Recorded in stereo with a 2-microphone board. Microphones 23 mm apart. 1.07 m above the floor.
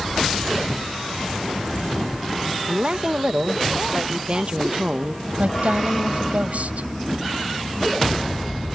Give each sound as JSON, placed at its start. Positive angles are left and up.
{"t": 2.7, "sound": "a woman speaking", "side_deg": -40}
{"t": 5.4, "sound": "a woman speaking", "side_deg": -85}